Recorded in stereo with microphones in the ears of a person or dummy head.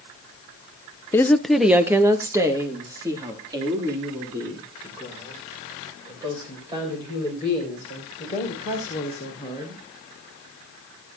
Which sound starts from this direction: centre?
A woman speaking, at 1.1 s.